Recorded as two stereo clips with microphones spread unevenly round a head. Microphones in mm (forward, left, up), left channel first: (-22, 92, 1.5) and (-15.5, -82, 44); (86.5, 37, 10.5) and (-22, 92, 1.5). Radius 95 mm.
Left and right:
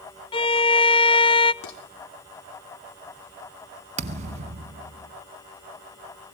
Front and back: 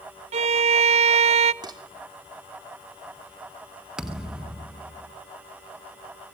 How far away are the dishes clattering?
About 3 m.